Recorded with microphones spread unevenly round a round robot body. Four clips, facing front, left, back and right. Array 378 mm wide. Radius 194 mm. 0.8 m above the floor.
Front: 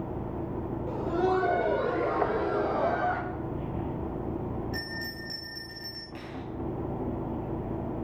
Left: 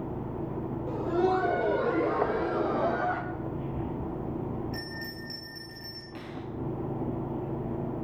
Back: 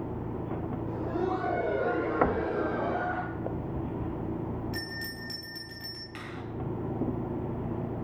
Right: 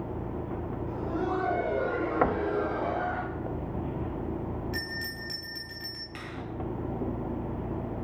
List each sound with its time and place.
0.9 s laughter: 70° left, 3.5 m; by 3.2 s 60° left, 6 m
2.2 s knocking: 140° right, 1.3 m
4.7 s a bell: 95° right, 5 m
6.2 s a finger snap: 150° right, 3 m